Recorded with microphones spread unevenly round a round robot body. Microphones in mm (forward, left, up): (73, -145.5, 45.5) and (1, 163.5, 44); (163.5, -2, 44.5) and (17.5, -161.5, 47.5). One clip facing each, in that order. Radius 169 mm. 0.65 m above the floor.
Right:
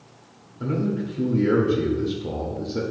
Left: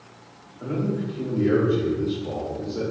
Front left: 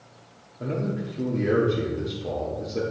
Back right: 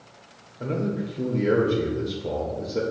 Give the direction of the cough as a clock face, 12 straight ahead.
I don't hear a cough.